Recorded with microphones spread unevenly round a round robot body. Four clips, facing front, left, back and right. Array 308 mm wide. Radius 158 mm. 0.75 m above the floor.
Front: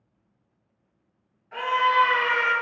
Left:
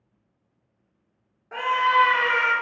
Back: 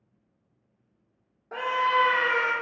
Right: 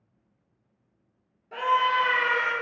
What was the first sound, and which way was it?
A scream, 170° left.